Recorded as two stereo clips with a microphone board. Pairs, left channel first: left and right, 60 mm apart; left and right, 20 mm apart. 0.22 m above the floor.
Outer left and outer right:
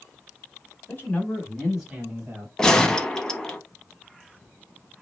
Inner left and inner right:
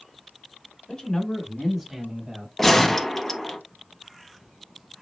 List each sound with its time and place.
0.9 s a man speaking: 35° left (ahead or behind), 1.4 m; by 2.5 s 40° right (ahead or behind), 1.4 m
2.6 s a gunshot: 10° left (ahead or behind), 0.6 m